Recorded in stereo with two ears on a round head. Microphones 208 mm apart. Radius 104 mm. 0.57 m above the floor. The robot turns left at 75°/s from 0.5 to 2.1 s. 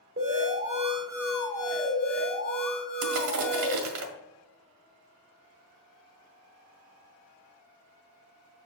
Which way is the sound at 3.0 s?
65° right (ahead or behind).